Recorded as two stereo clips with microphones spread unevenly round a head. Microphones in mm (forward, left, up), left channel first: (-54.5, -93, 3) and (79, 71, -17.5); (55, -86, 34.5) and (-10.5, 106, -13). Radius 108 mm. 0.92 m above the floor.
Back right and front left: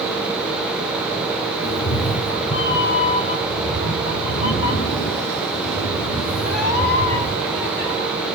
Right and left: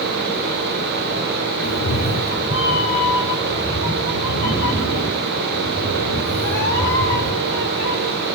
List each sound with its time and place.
1.6 s a cat meowing: 80° right, 0.8 m; by 7.9 s 115° right, 5 m